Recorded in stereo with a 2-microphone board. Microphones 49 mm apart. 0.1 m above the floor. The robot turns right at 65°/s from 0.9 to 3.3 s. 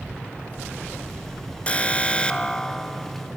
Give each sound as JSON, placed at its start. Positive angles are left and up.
{"t": 1.7, "sound": "an alarm", "side_deg": 25, "distance_m": 1.2}